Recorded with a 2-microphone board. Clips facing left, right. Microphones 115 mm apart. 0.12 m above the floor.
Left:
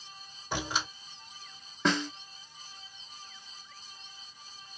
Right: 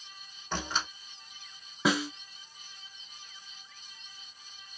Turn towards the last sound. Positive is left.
turn(degrees=-10)  # may be behind; listen again after turning